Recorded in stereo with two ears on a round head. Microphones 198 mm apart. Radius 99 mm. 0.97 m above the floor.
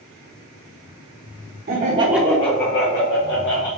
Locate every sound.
1.7 s laughter: 45° right (ahead or behind), 1.1 m; by 3.7 s 70° left (ahead or behind), 2.5 m